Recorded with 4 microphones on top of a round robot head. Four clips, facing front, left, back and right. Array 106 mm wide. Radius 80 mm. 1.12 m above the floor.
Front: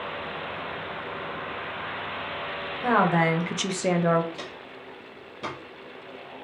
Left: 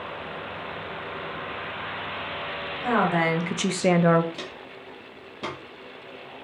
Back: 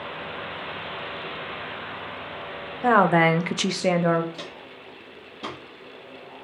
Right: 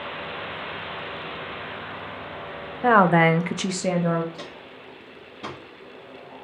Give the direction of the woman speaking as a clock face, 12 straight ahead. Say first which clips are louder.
Right 6 dB, back 4 dB; 4 o'clock.